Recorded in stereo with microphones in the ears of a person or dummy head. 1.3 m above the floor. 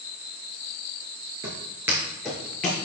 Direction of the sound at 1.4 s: 25° right (ahead or behind).